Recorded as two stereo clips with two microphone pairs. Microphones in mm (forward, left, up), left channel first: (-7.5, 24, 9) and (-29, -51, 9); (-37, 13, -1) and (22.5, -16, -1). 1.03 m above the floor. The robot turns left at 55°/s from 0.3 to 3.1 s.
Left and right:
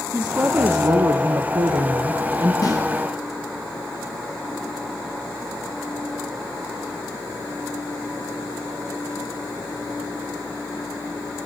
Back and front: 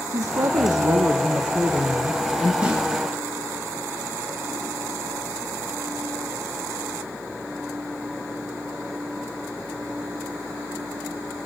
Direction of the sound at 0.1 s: 40° right.